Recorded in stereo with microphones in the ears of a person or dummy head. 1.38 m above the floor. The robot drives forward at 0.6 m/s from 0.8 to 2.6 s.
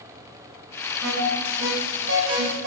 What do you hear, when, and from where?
1.0 s an alarm: 75° right (ahead or behind), 5 m; by 2.7 s 65° right (ahead or behind), 5 m